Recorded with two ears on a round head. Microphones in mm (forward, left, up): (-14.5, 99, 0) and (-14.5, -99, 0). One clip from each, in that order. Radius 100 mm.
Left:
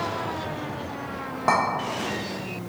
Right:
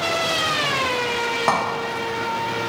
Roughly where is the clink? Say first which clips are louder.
Even; right.